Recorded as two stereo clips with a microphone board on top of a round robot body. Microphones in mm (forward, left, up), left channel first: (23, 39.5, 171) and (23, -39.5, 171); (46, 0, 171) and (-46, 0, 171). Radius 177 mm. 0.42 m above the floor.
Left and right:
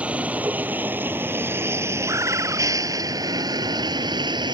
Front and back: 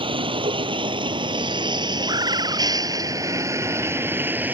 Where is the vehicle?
165° right; by 4.5 s 110° right.